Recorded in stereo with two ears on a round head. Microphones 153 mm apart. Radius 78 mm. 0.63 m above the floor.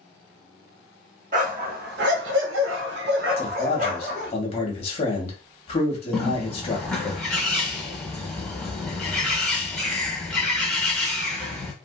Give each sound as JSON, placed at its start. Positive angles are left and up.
{"t": 1.3, "sound": "a dog barking", "side_deg": -50, "distance_m": 1.0}
{"t": 3.4, "sound": "a man speaking", "side_deg": 35, "distance_m": 1.3}
{"t": 6.1, "sound": "a bird", "side_deg": 5, "distance_m": 1.0}